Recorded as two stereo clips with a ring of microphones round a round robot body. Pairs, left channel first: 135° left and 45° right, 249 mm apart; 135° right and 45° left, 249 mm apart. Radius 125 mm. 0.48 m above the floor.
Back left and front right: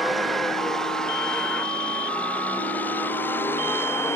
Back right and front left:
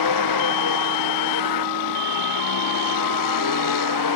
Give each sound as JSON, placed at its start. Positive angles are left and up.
{"t": 0.0, "sound": "a vehicle", "azimuth_deg": -135}